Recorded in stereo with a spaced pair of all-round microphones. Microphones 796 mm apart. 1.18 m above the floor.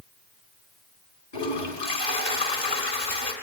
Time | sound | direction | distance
1.3 | a toilet flushing | 55° left (ahead or behind) | 3.5 m